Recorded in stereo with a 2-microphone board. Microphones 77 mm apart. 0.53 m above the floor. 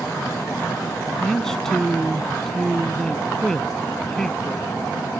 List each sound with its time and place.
1.2 s a man speaking: 5° left (ahead or behind)